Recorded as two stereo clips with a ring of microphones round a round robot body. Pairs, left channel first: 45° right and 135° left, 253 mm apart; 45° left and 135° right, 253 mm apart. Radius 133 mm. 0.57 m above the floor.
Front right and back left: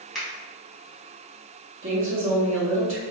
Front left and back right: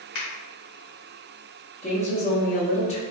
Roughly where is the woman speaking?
Left.